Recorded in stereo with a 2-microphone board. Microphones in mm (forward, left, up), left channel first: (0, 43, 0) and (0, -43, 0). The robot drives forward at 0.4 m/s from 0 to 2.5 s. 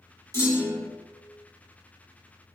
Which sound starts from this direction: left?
A clunk, at 0.3 s.